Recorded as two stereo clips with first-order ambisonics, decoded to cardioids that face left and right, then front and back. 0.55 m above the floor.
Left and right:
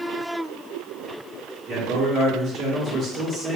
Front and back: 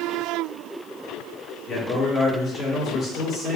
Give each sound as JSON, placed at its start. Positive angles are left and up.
{"t": 1.7, "sound": "a man speaking", "azimuth_deg": -30, "distance_m": 1.0}